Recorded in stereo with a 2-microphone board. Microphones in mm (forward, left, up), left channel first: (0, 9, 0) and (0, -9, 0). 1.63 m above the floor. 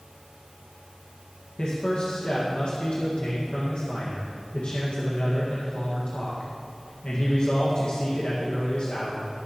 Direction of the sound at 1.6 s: 70° left (ahead or behind).